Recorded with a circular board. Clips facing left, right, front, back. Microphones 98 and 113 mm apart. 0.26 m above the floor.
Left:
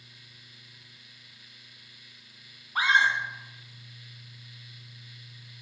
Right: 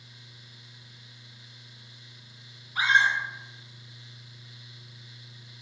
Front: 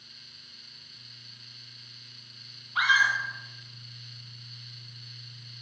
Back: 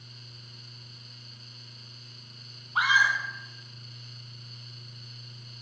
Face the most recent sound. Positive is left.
turn(degrees=125)